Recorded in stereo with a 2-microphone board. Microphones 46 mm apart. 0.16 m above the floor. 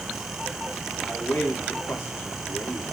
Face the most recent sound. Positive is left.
turn(degrees=65)  # may be behind; listen again after turning